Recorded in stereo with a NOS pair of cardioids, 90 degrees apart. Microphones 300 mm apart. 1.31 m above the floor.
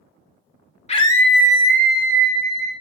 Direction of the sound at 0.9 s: 20° left.